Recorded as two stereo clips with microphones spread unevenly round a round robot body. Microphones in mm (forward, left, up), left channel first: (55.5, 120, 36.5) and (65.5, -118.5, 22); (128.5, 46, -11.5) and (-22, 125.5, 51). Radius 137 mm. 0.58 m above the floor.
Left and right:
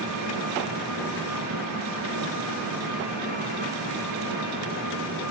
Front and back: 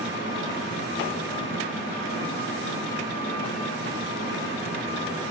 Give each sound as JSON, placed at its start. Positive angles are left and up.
{"t": 0.0, "sound": "an engine running", "azimuth_deg": -90, "distance_m": 7.5}